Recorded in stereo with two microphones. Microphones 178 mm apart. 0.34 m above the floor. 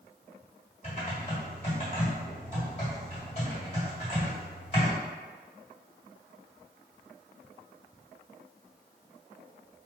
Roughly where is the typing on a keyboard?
Left.